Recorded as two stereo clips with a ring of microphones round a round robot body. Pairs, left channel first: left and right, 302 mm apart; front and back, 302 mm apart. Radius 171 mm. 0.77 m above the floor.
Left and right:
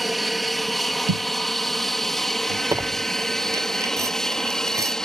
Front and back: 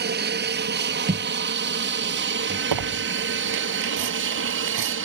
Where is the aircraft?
Straight behind; by 5.1 s 175° left.